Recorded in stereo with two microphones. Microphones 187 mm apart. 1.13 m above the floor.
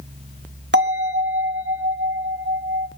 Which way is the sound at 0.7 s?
75° right (ahead or behind).